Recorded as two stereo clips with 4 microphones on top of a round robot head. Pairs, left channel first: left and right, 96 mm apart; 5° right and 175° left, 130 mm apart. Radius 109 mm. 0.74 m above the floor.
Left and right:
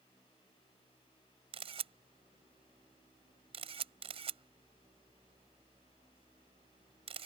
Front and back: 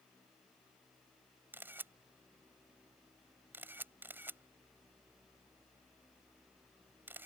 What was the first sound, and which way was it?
A camera shutter, 105° right.